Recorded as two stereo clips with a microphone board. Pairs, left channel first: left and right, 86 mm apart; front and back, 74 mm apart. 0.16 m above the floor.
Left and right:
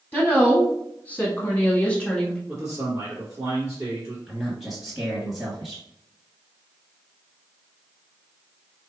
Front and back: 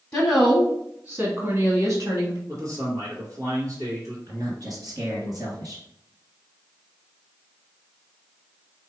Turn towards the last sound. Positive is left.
turn(degrees=-175)